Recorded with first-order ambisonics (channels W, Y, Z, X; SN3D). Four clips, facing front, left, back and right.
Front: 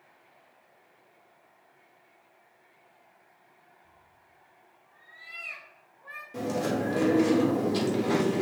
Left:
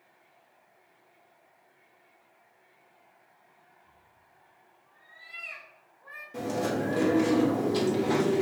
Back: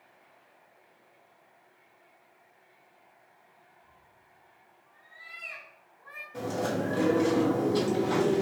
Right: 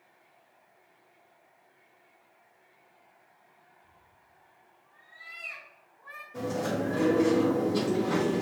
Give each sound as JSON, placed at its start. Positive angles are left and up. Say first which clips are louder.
{"t": 3.8, "sound": "a cat meowing", "louder": "even, even", "azimuth_deg": 135, "distance_m": 1.1}
{"t": 6.3, "sound": "chewing", "louder": "left 1 dB, front 2 dB", "azimuth_deg": 40, "distance_m": 1.5}